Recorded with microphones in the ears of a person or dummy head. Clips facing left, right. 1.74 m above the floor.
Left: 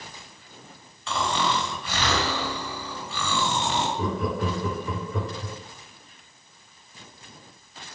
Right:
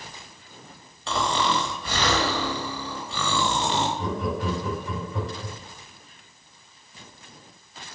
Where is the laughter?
60° left (ahead or behind), 0.8 m.